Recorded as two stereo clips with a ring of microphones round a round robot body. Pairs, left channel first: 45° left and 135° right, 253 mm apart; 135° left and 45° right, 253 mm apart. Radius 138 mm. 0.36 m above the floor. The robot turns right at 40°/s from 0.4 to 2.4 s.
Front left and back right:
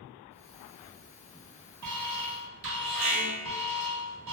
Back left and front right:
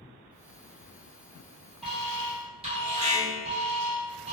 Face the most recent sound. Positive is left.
turn(degrees=-110)